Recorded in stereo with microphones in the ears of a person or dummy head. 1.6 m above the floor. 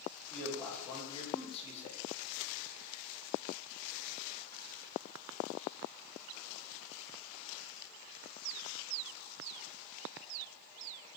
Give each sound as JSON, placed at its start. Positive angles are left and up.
{"t": 0.3, "sound": "a man speaking", "side_deg": 5, "distance_m": 2.5}